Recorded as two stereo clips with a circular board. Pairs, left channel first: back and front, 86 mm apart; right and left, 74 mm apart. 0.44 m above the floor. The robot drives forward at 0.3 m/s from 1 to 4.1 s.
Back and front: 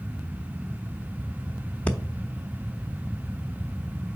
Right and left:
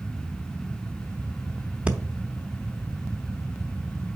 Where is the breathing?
135° left, 0.9 m; by 2.0 s 140° left, 0.9 m.